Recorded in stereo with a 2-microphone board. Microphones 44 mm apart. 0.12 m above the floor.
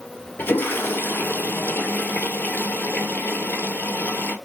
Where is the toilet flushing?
55° left (ahead or behind), 1.1 m.